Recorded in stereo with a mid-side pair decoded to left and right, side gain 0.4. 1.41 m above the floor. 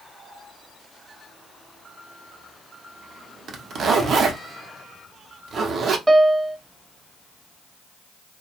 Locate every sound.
3.5 s a zipper: 60° right, 0.8 m
6.1 s a piano: 25° right, 0.6 m